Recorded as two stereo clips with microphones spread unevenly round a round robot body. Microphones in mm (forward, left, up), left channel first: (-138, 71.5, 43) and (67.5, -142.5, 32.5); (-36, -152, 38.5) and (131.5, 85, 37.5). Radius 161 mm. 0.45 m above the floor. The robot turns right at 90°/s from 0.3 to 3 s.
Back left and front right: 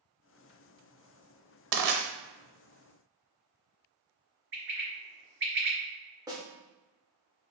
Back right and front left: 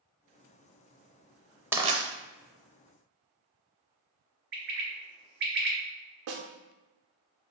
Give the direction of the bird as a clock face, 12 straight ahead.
12 o'clock.